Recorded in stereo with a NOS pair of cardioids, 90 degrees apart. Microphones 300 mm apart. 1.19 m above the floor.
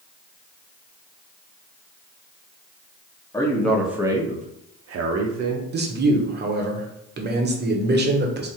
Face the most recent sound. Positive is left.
turn(degrees=-35)